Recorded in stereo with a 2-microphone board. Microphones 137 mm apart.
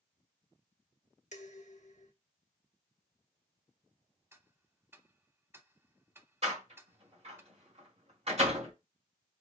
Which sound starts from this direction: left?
Dishes clattering, at 1.3 s.